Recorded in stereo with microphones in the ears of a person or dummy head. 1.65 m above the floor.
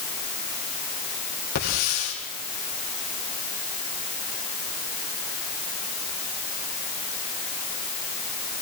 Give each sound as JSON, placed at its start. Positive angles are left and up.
{"t": 1.6, "sound": "a hiss", "side_deg": 85, "distance_m": 6.5}